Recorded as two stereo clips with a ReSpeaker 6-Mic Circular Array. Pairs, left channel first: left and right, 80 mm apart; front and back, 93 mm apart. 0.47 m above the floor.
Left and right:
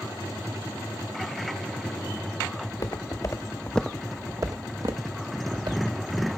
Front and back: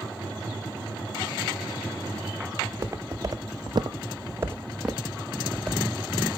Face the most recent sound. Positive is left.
turn(degrees=-90)